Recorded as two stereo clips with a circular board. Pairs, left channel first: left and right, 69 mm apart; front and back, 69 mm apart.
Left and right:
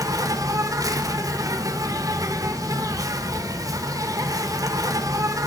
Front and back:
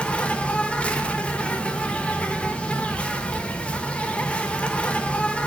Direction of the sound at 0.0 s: 70° right.